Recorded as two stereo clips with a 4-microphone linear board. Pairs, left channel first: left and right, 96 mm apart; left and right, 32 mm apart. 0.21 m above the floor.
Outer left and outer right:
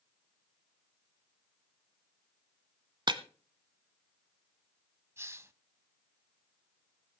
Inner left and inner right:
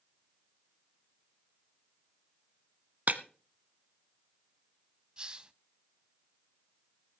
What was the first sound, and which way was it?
Breaking glass, 50° right (ahead or behind).